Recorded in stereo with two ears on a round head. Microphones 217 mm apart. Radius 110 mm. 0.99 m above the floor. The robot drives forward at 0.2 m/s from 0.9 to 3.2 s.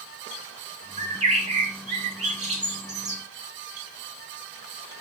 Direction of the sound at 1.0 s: 25° right (ahead or behind).